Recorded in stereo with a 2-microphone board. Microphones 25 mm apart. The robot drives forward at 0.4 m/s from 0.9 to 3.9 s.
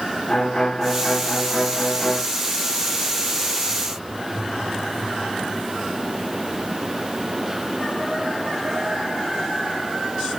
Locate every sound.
0.3 s a violin: 30° left (ahead or behind), 1.8 m